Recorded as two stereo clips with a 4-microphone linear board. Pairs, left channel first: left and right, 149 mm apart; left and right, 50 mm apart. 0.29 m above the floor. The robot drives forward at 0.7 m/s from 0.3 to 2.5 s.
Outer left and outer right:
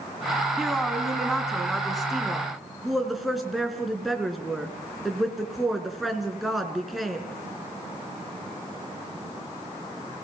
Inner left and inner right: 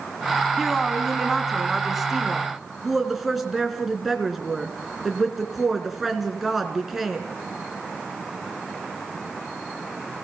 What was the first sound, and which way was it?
A woman speaking, centre (ahead or behind).